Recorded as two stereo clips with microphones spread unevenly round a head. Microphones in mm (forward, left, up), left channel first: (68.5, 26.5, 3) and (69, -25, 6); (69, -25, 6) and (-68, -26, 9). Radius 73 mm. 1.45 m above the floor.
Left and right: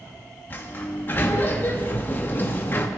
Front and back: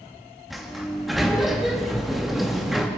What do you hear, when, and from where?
0.5 s a sliding door: 95° left, 0.9 m